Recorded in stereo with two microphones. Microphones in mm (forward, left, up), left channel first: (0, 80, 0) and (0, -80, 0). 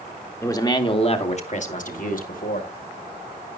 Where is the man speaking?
20° left (ahead or behind), 1.7 m; by 2.7 s 65° left (ahead or behind), 3 m.